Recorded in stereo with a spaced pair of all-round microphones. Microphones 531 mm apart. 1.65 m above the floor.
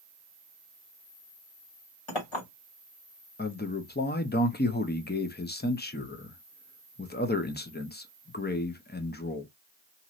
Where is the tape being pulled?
I don't hear tape being pulled.